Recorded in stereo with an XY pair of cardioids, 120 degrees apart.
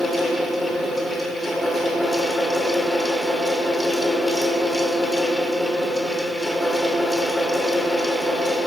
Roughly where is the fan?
Ahead.